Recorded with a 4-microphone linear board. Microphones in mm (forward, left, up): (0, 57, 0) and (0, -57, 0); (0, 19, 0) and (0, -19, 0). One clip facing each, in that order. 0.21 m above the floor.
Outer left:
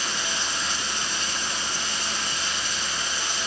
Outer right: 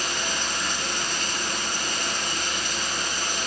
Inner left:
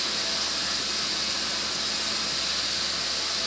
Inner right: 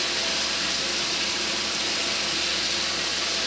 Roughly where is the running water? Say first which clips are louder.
Outer right 1 dB, inner right 3 dB; right.